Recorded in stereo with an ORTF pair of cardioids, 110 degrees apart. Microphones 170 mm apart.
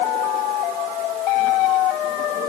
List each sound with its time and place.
Only background noise.